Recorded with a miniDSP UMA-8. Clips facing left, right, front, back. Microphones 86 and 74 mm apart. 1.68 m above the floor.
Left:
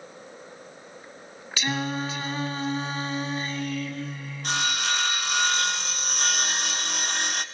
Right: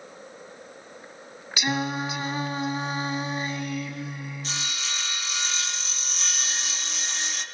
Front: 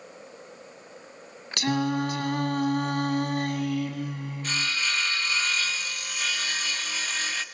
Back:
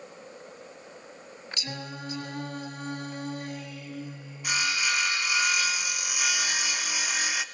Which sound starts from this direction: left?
Sawing, at 4.4 s.